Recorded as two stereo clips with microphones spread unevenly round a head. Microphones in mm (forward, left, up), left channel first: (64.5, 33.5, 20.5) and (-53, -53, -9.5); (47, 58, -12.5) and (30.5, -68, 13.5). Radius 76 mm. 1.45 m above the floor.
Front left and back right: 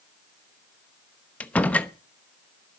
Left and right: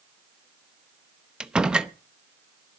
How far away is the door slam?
About 0.9 m.